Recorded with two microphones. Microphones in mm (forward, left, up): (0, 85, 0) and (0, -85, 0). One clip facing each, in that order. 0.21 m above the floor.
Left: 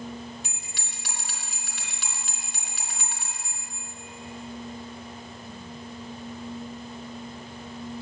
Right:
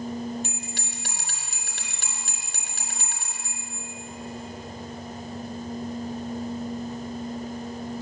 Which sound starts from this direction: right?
A bell, at 0.4 s.